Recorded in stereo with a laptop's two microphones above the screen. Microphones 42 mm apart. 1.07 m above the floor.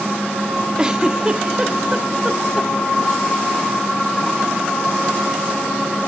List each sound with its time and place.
0.8 s a giggle: 20° right (ahead or behind), 0.6 m